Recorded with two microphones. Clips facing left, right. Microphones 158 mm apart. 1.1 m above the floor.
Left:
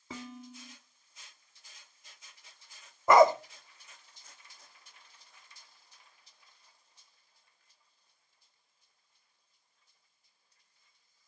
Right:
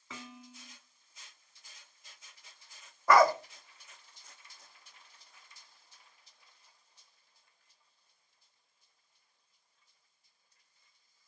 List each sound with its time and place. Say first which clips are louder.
0.1 s dishes clattering: left 5 dB; 35° left (ahead or behind), 1.4 m
3.1 s a dog barking: left 3 dB; 20° left (ahead or behind), 0.7 m